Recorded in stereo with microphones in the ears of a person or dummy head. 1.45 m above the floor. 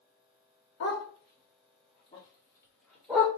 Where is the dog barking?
55° left (ahead or behind), 1.5 m; by 3.3 s centre (ahead or behind), 2.5 m.